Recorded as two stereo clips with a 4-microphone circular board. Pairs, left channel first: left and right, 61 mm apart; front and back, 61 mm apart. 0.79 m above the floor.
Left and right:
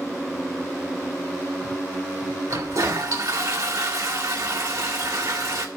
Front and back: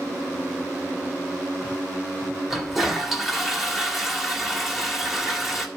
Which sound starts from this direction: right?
A toilet flushing, at 2.5 s.